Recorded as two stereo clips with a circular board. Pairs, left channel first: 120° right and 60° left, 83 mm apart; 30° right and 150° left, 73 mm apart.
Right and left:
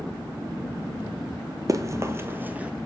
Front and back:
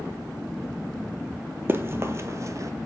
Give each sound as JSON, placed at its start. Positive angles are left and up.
{"t": 1.7, "sound": "running footsteps", "azimuth_deg": 95, "distance_m": 1.1}